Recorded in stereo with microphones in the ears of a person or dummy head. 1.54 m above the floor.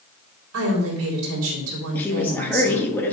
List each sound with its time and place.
0.5 s a woman speaking: 85° right, 4 m
1.9 s a woman speaking: 10° left (ahead or behind), 3 m